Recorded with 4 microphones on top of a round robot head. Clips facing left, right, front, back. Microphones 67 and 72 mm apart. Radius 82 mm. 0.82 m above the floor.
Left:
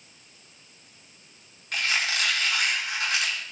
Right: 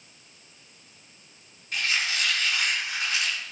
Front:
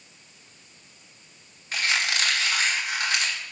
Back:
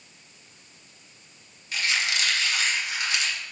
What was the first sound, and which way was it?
A squeak, 45° left.